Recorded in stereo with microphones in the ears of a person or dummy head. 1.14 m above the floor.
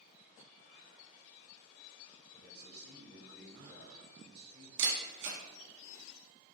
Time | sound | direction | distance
2.3 | a man speaking | 60° right (ahead or behind) | 1.5 m
4.8 | a camera shutter | 70° right (ahead or behind) | 1.2 m